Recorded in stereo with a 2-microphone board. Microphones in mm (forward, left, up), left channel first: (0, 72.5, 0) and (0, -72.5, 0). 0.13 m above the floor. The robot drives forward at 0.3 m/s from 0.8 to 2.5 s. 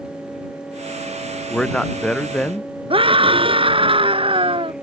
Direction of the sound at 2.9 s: 40° right (ahead or behind).